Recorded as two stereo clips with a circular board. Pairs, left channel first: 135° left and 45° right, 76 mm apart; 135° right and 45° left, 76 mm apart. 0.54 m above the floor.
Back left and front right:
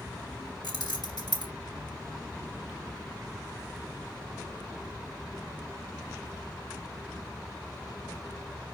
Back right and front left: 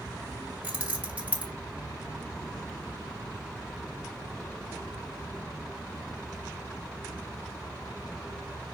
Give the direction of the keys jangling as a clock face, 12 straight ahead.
8 o'clock.